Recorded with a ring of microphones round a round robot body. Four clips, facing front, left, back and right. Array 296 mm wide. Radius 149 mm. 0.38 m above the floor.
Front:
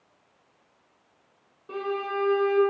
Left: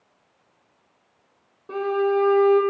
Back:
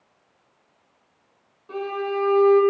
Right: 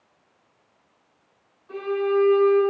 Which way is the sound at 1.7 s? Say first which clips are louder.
Left 2 dB, back 3 dB; 75° left.